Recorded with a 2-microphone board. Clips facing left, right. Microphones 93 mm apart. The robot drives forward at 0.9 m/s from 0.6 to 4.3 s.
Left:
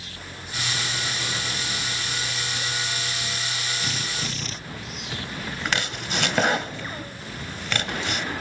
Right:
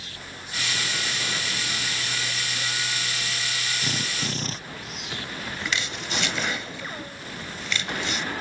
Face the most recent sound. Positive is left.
turn(degrees=55)  # may be behind; listen again after turning